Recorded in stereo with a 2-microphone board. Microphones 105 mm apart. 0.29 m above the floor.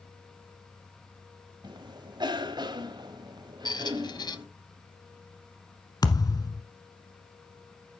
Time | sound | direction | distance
1.6 | a cough | 45° right (ahead or behind) | 1.4 m
3.6 | a squeak | 45° left (ahead or behind) | 0.9 m
6.0 | a thud | 40° left (ahead or behind) | 1.1 m